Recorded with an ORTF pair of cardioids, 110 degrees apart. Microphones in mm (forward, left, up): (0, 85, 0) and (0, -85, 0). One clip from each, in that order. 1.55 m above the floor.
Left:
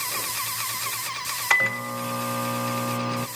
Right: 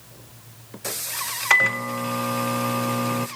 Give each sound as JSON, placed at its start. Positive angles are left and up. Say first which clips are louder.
{"t": 1.5, "sound": "a microwave", "louder": "right 3 dB", "azimuth_deg": -10, "distance_m": 0.6}